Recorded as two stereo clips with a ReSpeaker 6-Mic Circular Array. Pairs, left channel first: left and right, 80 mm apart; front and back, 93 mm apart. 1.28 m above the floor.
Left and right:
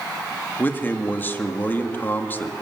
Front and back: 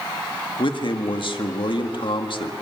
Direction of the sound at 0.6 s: 25° left.